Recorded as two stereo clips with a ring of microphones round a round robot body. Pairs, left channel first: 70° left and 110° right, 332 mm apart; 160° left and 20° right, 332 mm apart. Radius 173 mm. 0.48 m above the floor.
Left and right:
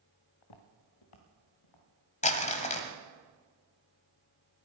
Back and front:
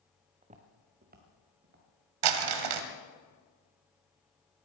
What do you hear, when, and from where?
0.4 s footsteps: 50° left, 2.0 m; by 3.0 s 35° left, 5.5 m
2.2 s crumpling: 5° right, 1.1 m